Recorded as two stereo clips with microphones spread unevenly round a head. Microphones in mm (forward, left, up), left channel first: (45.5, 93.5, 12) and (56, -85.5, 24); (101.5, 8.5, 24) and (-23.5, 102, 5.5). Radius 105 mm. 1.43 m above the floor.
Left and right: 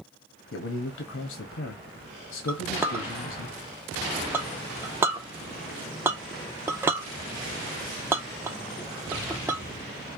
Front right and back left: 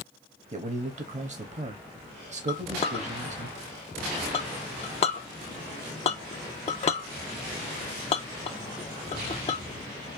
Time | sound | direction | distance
0.5 | a man speaking | 100° left | 0.8 m
2.5 | a clink | 15° right | 0.6 m